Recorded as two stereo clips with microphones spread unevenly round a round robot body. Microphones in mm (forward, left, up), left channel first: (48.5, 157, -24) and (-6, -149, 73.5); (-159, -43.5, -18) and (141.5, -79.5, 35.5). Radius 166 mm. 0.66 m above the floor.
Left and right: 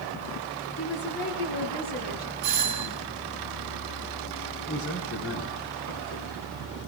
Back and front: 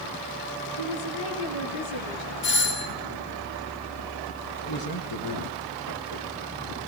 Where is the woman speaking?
135° left, 8.5 m; by 2.3 s 145° left, 9 m.